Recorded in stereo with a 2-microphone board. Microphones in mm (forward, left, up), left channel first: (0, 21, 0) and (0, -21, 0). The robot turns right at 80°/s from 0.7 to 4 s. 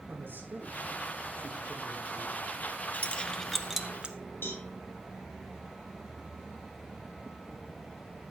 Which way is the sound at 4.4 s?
65° left (ahead or behind).